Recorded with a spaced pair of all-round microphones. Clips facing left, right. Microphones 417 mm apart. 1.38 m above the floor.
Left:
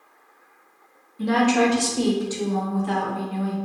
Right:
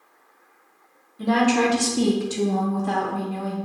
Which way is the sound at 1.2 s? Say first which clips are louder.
Even; 5° left (ahead or behind).